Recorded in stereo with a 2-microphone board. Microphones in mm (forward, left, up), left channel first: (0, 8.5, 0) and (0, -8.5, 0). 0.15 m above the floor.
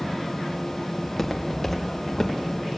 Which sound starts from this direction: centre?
Footsteps, at 1.0 s.